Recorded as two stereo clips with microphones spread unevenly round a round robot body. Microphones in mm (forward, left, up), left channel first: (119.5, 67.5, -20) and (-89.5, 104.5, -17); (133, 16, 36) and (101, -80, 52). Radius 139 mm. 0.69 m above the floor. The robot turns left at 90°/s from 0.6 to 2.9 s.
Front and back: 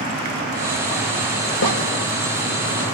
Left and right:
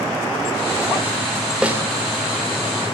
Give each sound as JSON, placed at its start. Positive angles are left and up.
{"t": 1.6, "sound": "a snare drum", "azimuth_deg": -25, "distance_m": 1.5}